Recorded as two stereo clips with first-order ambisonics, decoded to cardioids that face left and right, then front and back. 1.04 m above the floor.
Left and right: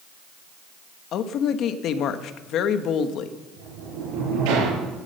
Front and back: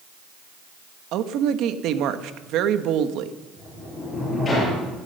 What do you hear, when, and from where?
1.1 s a woman speaking: 140° left, 1.0 m
3.6 s a sliding door: 75° right, 6.5 m